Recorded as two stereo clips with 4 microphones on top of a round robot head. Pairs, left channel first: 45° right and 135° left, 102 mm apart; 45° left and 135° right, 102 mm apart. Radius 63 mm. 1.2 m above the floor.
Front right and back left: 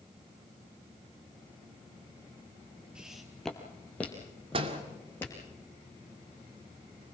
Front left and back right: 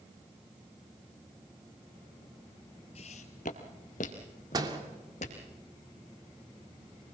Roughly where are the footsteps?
Ahead left.